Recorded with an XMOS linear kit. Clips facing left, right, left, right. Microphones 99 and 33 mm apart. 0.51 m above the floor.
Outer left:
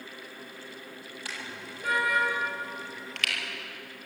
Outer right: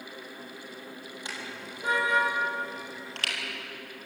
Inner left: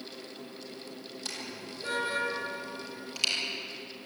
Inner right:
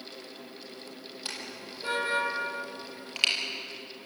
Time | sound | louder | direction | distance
1.2 | a car horn | even, inner right 1 dB | 20° right (ahead or behind) | 6.5 m